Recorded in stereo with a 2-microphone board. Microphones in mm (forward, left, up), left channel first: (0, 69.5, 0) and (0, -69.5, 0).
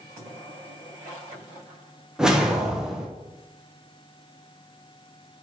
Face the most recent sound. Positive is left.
turn(degrees=-5)  # may be behind; listen again after turning